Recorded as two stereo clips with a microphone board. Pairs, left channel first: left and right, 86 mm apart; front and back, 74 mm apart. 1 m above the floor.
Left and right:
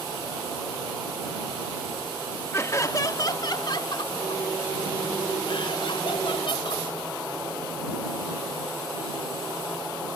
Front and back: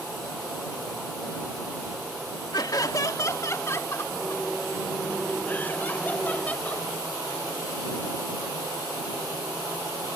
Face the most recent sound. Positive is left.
turn(degrees=70)